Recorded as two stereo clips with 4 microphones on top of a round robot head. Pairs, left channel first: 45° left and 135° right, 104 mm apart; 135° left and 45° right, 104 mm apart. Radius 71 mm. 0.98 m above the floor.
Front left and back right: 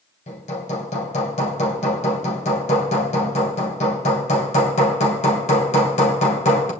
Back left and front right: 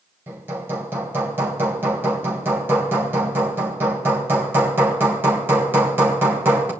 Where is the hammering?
25° left, 2.5 m.